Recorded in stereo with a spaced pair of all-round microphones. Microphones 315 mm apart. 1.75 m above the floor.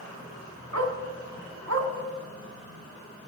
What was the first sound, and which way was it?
A dog barking, 60° right (ahead or behind).